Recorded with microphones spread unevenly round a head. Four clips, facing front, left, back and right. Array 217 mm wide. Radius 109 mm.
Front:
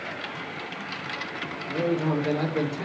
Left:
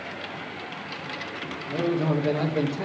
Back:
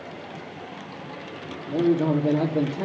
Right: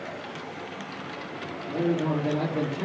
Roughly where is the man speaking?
Behind.